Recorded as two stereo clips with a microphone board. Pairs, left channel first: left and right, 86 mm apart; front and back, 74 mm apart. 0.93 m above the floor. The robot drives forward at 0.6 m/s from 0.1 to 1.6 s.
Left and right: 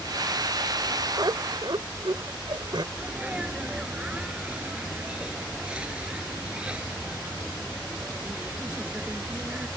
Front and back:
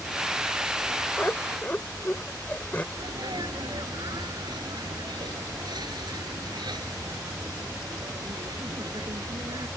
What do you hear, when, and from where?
1.2 s laughter: 60° right; by 2.8 s 65° right
2.9 s a sneeze: 170° right